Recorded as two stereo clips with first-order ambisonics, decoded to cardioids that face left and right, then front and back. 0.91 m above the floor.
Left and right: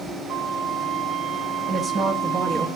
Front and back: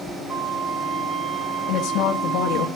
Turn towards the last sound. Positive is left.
turn(degrees=-25)